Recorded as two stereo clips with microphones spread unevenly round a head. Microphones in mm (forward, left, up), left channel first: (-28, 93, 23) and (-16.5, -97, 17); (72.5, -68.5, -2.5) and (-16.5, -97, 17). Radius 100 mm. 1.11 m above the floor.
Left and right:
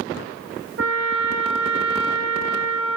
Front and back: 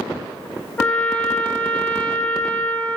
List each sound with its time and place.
0.8 s a trumpet: 60° right, 1.5 m